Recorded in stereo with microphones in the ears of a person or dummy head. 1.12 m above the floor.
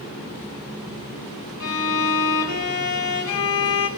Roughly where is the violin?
Left.